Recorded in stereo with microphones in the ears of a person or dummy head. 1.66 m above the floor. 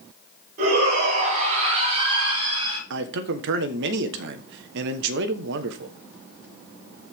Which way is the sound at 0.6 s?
45° right (ahead or behind).